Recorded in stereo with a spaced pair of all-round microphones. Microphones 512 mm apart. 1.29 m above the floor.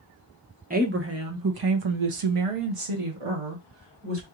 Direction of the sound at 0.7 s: 15° right (ahead or behind).